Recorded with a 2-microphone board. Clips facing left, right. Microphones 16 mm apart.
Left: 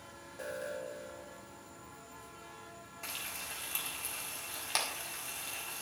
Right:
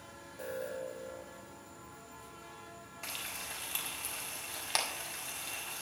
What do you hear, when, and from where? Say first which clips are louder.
0.4 s an alarm: right 1 dB; 20° left (ahead or behind), 1.4 m
3.0 s frying: even; 5° right (ahead or behind), 1.7 m